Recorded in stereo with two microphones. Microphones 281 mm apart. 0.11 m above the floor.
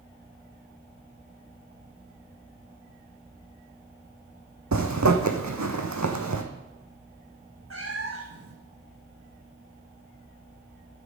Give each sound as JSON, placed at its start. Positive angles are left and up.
{"t": 4.7, "sound": "a zipper", "side_deg": -85, "distance_m": 1.1}
{"t": 7.7, "sound": "a cat meowing", "side_deg": -50, "distance_m": 1.3}